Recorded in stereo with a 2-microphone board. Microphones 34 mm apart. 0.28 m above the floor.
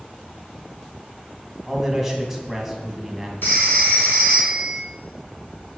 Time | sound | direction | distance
1.7 | a man speaking | 5° right (ahead or behind) | 2 m
3.4 | a phone ringing | 70° left (ahead or behind) | 2.5 m